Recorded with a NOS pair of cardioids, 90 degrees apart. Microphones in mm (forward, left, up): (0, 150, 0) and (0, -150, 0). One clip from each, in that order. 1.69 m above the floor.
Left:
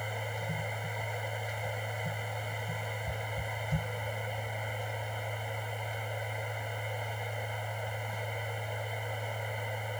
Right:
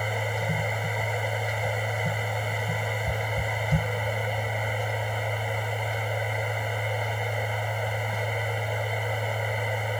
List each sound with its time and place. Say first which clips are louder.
0.0 s a machine running: right 8 dB; 55° right